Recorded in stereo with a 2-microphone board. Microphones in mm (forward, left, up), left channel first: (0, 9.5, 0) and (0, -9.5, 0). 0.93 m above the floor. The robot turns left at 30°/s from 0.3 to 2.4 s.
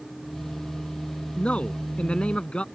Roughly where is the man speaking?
Left.